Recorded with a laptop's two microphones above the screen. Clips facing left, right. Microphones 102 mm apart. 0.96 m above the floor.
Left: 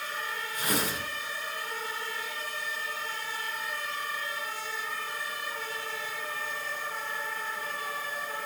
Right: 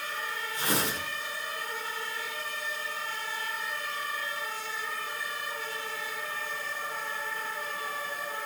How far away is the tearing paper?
About 9.5 m.